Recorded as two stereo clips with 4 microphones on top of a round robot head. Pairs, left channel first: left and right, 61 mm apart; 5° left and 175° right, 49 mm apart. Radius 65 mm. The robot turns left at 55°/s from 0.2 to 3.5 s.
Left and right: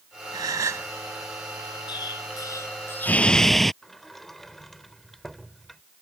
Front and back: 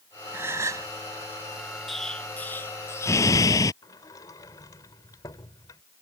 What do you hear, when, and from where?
0.3 s a gasp: 120° right; by 0.9 s 150° right
1.9 s an explosion: 95° left; by 3.7 s 5° left
3.8 s a sliding door: 5° left